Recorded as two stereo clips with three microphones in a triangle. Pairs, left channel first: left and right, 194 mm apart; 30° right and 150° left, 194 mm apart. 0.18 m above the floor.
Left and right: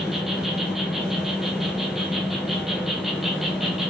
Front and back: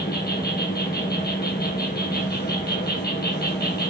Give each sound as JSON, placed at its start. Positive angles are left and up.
{"t": 0.0, "sound": "an insect", "azimuth_deg": 0, "distance_m": 0.7}